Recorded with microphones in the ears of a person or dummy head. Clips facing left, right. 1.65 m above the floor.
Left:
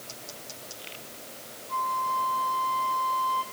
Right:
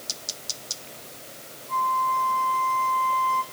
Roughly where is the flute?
Right.